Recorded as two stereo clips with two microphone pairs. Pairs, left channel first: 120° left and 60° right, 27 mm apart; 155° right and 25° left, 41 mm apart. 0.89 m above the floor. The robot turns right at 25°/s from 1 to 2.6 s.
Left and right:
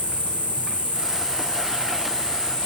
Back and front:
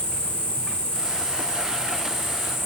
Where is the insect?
140° left, 5 m; by 2.7 s straight behind, 5 m.